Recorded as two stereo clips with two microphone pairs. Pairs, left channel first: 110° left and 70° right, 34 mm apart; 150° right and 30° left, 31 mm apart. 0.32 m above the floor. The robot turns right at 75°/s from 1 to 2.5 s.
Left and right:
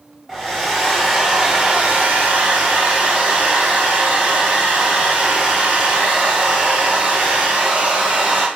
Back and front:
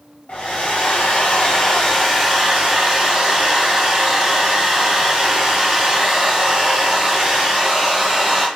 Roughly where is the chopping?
I don't hear chopping.